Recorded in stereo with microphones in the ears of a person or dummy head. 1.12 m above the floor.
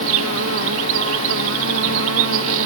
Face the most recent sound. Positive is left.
turn(degrees=-70)  # may be behind; listen again after turning